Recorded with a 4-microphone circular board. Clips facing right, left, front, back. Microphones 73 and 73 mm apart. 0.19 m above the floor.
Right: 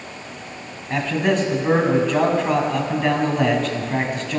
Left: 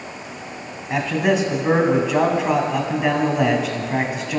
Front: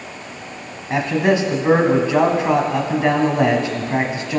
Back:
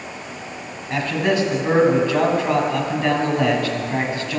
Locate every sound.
0.9 s a man speaking: 15° left, 1.1 m